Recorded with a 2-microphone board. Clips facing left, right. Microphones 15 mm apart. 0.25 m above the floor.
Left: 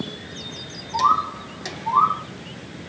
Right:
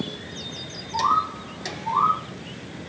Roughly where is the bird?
Centre.